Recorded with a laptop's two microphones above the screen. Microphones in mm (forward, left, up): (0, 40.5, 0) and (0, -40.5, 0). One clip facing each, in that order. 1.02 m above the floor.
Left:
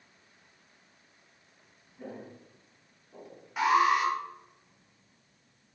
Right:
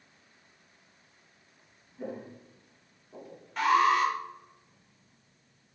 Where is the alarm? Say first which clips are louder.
Right 1 dB; 10° left (ahead or behind), 4 m.